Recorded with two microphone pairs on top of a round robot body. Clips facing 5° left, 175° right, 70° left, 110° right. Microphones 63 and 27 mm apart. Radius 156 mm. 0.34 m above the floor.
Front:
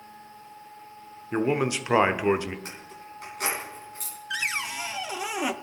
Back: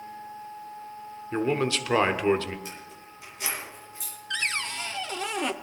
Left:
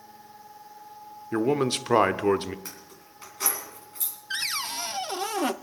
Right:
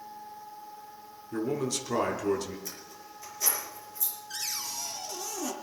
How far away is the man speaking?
About 1.1 m.